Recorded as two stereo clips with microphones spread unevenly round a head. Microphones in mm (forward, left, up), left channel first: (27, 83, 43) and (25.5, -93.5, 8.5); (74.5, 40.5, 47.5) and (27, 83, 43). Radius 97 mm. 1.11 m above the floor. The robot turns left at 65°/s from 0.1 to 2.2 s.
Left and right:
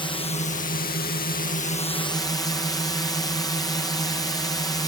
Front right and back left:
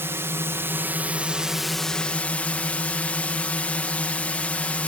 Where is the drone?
155° left; by 4.9 s 15° left.